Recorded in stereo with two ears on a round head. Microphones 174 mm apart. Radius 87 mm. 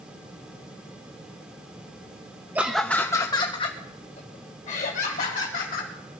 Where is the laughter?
10° right (ahead or behind), 0.5 m; by 5.9 s 45° left (ahead or behind), 2 m.